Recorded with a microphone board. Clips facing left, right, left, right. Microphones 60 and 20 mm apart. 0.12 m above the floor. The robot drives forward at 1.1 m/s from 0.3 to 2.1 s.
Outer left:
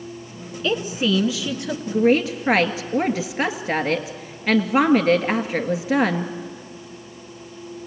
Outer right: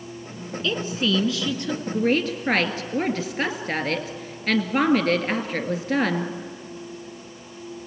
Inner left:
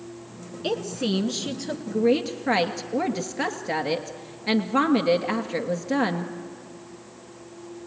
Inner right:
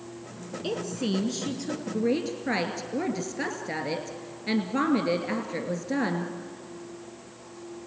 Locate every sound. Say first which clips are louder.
0.6 s a woman speaking: outer left 3 dB, inner left 4 dB; 15° left (ahead or behind), 1.2 m; by 6.3 s 10° left (ahead or behind), 1.8 m